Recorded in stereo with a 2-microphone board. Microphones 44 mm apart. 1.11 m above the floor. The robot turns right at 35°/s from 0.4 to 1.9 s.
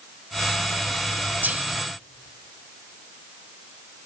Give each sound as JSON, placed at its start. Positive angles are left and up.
{"t": 1.4, "sound": "whispering", "side_deg": -45, "distance_m": 1.9}